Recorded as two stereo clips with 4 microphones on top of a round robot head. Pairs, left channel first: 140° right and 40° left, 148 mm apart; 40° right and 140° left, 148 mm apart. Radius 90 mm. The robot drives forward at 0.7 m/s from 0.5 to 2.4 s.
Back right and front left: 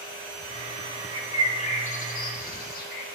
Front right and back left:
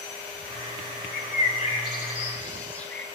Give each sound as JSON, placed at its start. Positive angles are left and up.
{"t": 1.1, "sound": "a bird", "azimuth_deg": -70, "distance_m": 1.0}